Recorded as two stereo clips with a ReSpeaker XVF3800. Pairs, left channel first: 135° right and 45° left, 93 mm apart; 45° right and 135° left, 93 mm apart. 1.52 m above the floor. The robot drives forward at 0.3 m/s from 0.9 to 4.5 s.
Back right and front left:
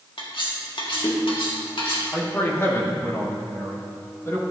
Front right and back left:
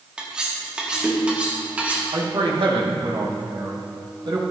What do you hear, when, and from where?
0.2 s cutlery clinking: 145° right, 1.6 m; by 2.0 s 150° right, 1.9 m
2.1 s a man speaking: 160° left, 1.8 m; by 4.4 s 165° left, 2.5 m